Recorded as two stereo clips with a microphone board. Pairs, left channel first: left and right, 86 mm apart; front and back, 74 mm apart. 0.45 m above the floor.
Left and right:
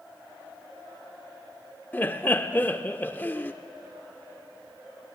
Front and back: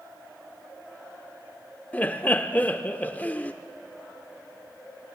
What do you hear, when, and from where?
1.9 s laughter: 45° left, 0.8 m